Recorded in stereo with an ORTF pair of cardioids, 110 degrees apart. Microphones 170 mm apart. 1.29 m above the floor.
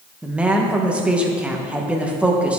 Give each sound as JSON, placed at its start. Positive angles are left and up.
{"t": 0.2, "sound": "a woman speaking", "azimuth_deg": -5, "distance_m": 1.1}